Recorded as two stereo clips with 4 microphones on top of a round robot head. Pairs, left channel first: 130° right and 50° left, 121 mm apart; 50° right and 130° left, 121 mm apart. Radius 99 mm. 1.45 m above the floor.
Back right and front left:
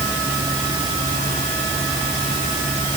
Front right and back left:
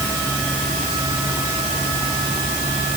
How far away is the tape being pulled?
I don't hear tape being pulled.